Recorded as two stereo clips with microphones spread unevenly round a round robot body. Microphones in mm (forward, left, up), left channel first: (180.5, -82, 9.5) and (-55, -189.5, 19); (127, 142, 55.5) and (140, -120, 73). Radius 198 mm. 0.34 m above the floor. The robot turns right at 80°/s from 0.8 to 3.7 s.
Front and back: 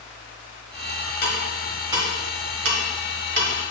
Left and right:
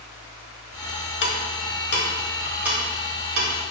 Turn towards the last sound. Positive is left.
turn(degrees=-90)